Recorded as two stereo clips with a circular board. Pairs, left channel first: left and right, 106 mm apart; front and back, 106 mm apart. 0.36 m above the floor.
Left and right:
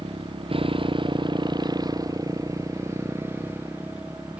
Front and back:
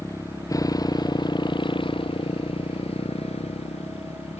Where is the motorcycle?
65° right; by 4.4 s 10° right.